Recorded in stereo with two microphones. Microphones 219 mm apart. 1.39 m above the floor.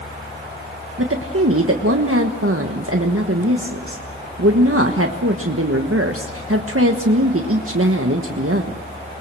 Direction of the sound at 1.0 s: 85° right.